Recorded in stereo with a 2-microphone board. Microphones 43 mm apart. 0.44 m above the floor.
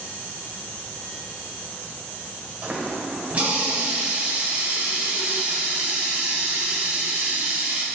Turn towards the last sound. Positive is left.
turn(degrees=-30)  # may be behind; listen again after turning